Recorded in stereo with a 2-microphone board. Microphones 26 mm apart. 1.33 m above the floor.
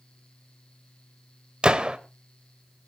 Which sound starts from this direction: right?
A gunshot, at 1.6 s.